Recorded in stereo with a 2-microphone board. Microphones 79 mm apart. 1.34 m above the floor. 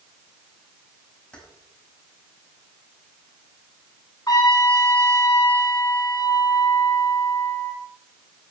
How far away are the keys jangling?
About 5 m.